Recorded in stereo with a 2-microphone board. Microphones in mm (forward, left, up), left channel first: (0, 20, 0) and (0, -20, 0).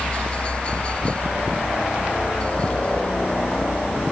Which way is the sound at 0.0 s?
30° left (ahead or behind).